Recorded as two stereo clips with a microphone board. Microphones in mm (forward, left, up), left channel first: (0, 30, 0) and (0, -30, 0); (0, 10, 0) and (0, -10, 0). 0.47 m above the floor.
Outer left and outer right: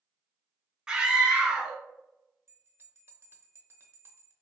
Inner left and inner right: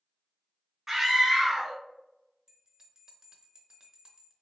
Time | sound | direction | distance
0.9 | a scream | 15° right (ahead or behind) | 0.8 m
2.5 | a bell | 35° right (ahead or behind) | 0.6 m